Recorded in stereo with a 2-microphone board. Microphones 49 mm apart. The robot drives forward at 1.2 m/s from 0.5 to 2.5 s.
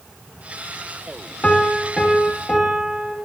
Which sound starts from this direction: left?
A piano, at 1.4 s.